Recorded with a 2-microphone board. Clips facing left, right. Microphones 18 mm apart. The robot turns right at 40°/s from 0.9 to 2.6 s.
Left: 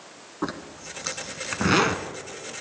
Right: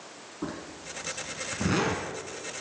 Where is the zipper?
50° left (ahead or behind), 1.0 m; by 2.1 s 35° left (ahead or behind), 1.0 m.